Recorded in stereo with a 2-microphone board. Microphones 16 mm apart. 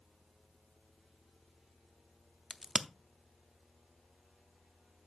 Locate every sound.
2.5 s a crack: 30° right (ahead or behind), 0.5 m